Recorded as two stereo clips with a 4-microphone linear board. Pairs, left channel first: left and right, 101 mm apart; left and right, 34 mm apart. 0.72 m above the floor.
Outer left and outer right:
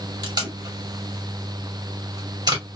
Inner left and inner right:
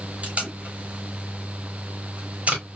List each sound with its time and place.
0.2 s tape being pulled: 45° right (ahead or behind), 2 m